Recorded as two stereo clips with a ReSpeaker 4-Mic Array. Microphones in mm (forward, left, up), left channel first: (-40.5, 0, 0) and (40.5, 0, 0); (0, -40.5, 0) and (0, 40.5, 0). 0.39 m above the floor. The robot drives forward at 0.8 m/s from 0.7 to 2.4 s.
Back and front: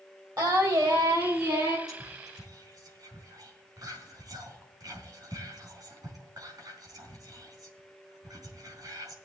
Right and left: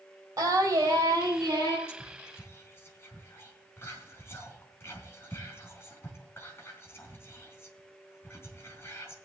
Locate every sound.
0.4 s singing: 40° left, 4 m; by 1.8 s 50° left, 3 m
1.9 s whispering: 30° right, 4 m; by 9.2 s 35° right, 4 m